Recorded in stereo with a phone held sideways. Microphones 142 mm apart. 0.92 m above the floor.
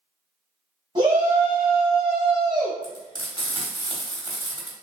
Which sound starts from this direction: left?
Frying, at 2.8 s.